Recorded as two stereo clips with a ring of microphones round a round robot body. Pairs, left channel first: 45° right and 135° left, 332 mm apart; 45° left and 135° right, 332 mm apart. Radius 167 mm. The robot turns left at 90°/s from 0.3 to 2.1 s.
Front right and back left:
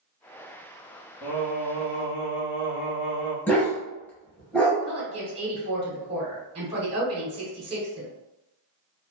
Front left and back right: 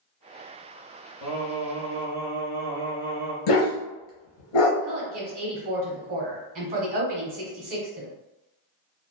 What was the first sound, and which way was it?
Singing, 45° left.